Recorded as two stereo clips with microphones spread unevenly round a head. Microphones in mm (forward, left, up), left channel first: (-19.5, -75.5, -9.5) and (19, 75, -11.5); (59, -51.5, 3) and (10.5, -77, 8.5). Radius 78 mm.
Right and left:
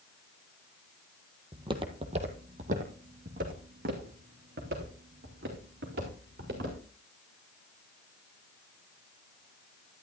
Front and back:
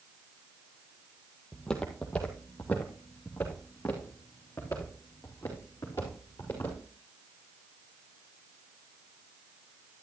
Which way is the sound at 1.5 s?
105° left.